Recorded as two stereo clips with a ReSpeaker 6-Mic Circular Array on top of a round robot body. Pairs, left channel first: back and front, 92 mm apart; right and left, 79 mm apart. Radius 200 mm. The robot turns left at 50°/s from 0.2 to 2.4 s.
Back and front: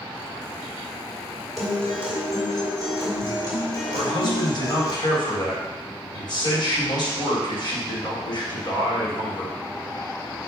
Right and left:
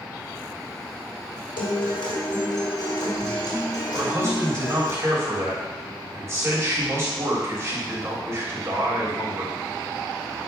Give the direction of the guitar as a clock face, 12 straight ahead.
3 o'clock.